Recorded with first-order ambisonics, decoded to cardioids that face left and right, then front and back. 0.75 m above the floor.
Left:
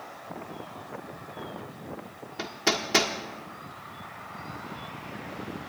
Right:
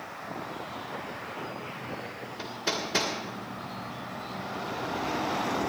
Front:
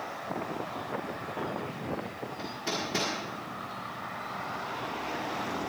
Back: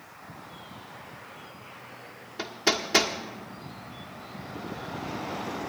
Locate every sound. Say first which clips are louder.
2.4 s hammering: left 4 dB, back 8 dB; 130° left, 1.5 m